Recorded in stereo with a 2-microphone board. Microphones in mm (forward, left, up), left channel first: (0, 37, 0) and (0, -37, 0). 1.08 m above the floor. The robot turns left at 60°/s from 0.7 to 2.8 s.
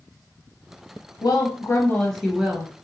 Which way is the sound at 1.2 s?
60° left.